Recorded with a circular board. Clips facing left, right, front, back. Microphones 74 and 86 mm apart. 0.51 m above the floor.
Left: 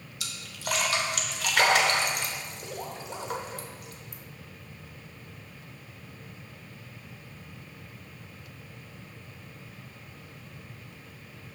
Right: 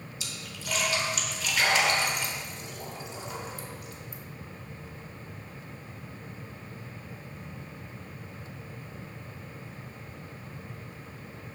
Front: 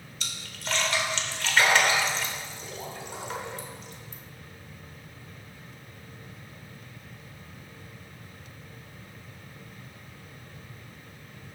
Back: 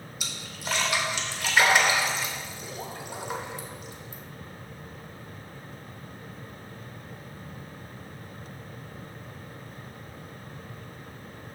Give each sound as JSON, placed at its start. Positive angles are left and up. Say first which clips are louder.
{"t": 0.2, "sound": "a splash", "louder": "left 5 dB, back 1 dB", "azimuth_deg": 105, "distance_m": 0.9}